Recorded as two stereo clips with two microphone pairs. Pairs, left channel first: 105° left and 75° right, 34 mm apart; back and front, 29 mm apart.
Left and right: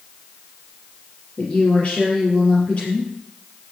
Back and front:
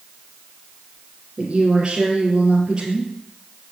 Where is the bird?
I don't hear a bird.